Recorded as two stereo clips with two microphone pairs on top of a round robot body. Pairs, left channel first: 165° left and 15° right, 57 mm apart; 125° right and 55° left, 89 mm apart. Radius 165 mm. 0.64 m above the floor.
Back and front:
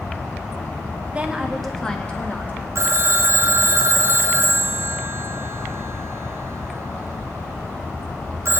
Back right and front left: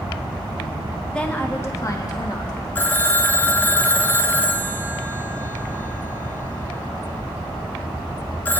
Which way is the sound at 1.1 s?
50° right.